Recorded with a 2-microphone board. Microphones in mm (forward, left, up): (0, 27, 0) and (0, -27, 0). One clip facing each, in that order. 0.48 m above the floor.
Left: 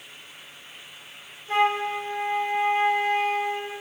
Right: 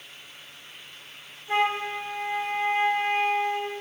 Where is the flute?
20° right (ahead or behind), 0.9 m.